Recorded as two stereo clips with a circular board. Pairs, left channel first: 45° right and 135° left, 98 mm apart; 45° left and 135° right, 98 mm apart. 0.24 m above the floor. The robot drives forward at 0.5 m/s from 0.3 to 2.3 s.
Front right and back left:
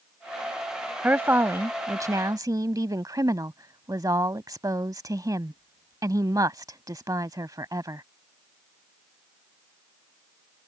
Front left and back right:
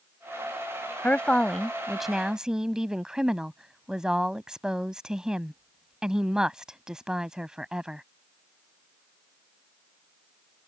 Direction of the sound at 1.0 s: 90° left.